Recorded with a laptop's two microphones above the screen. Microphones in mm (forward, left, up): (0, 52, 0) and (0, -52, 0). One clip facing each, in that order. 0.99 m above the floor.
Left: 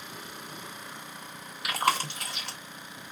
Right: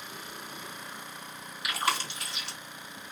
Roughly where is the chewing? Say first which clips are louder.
Left 4 dB; left.